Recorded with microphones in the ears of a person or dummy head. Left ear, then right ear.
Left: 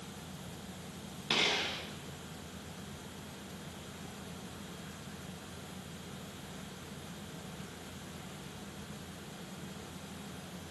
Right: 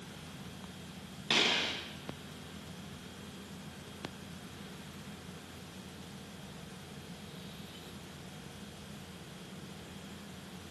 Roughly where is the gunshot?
Centre.